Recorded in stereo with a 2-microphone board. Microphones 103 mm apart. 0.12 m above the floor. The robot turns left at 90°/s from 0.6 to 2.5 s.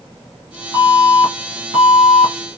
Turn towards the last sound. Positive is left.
turn(degrees=-130)